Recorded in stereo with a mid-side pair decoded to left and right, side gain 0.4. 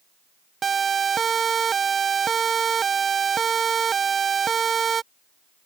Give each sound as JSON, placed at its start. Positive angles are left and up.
{"t": 0.6, "sound": "a siren", "azimuth_deg": -45}